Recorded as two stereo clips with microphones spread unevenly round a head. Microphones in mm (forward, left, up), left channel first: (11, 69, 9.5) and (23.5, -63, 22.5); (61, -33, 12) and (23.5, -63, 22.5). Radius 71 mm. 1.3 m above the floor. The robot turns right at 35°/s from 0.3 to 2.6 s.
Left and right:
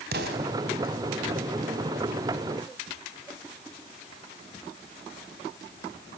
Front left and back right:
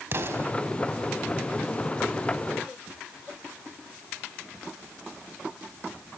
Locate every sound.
0.1 s an explosion: 110° right, 4 m; by 0.5 s 100° right, 4 m